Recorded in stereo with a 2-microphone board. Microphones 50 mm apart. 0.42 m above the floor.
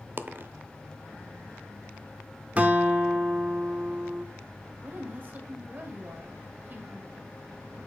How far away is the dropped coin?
About 0.5 m.